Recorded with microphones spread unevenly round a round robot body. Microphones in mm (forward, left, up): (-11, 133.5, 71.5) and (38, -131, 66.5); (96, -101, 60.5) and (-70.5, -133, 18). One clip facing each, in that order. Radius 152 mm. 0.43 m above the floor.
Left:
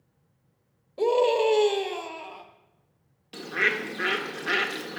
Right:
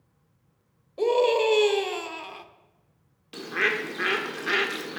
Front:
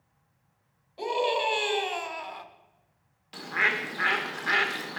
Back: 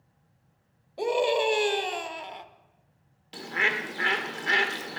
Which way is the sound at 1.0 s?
170° right.